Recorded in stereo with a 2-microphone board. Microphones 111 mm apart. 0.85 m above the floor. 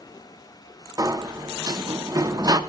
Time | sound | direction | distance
1.0 | a sliding door | 30° right (ahead or behind) | 0.6 m